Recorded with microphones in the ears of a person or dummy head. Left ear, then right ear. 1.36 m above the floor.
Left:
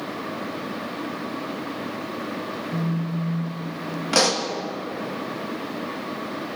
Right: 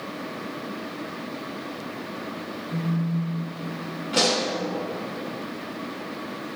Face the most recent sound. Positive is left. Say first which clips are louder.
# left 2 dB
turn(degrees=50)  # may be behind; listen again after turning